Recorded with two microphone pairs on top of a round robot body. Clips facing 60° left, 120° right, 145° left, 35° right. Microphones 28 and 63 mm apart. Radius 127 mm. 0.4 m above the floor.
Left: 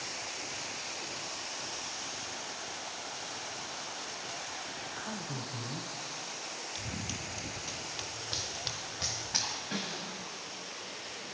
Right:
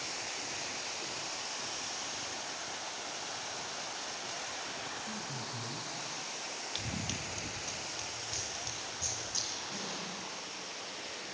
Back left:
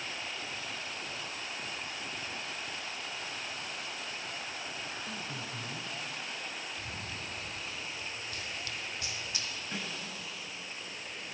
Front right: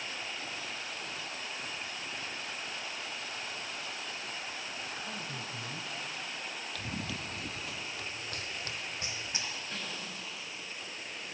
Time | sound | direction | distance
5.0 | a man speaking | 45° left | 2 m
6.8 | running footsteps | 65° right | 1.0 m
9.7 | a snare drum | 75° left | 9 m